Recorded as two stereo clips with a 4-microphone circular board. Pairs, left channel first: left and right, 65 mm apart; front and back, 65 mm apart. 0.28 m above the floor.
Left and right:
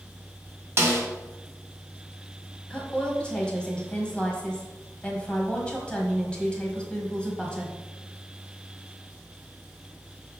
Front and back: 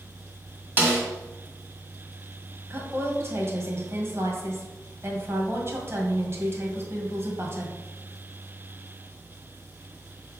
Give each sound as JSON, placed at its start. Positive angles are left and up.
{"t": 0.8, "sound": "a snare drum", "azimuth_deg": -130, "distance_m": 1.7}
{"t": 2.7, "sound": "a woman speaking", "azimuth_deg": 155, "distance_m": 1.7}